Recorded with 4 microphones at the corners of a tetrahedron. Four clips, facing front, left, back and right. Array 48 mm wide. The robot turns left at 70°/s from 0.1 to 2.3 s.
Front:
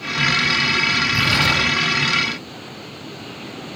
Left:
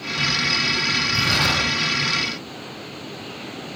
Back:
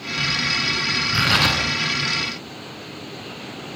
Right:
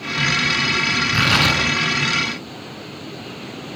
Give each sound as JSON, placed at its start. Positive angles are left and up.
{"t": 1.1, "sound": "tearing paper", "azimuth_deg": -115, "distance_m": 9.0}